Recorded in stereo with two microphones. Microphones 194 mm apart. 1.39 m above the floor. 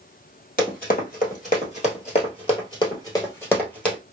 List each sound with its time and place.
0.6 s running footsteps: 50° left (ahead or behind), 2.0 m; by 4.0 s 5° left (ahead or behind), 1.7 m